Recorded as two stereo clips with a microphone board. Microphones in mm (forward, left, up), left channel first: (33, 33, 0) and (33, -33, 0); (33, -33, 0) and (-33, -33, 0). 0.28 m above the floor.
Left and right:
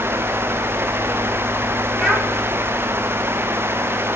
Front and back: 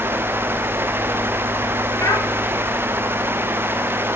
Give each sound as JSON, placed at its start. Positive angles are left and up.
{"t": 2.0, "sound": "a child speaking", "azimuth_deg": 0, "distance_m": 1.7}